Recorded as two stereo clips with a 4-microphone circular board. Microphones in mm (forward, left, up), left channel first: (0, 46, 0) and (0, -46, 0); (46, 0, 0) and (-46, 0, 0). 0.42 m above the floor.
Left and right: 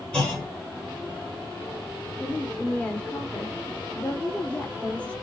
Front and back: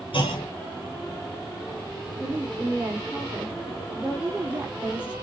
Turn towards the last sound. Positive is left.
turn(degrees=135)